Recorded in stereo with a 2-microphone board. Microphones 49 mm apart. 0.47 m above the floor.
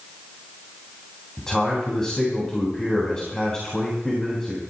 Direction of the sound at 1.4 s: 15° left (ahead or behind).